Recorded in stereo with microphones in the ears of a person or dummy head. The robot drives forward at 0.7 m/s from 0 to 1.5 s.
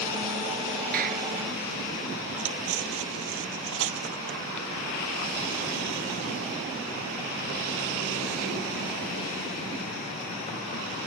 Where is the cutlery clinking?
70° right (ahead or behind).